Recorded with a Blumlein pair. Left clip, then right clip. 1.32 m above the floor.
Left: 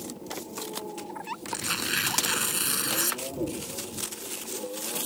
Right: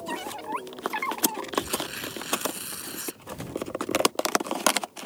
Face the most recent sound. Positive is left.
turn(degrees=65)